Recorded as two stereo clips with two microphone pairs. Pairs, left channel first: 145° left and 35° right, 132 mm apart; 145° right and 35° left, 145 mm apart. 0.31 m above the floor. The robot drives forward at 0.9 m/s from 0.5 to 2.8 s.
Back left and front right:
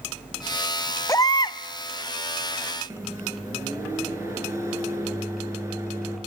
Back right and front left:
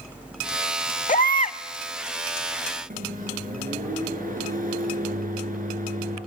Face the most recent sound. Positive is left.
turn(degrees=30)